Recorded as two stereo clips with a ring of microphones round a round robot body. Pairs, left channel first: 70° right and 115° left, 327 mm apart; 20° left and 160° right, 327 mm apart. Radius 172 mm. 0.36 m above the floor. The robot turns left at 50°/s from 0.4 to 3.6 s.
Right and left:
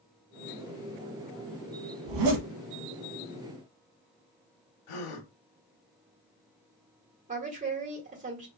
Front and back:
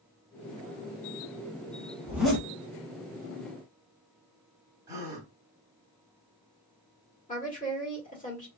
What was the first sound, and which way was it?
A zipper, 125° left.